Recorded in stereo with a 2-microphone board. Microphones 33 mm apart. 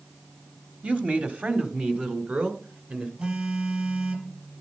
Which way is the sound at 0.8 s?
40° right (ahead or behind).